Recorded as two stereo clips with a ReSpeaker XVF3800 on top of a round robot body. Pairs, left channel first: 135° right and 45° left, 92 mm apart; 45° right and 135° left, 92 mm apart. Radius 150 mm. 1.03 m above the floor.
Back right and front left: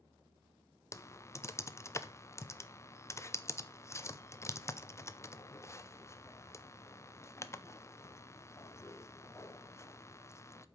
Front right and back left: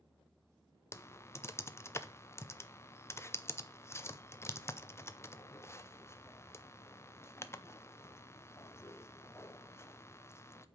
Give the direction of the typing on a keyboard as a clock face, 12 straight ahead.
3 o'clock.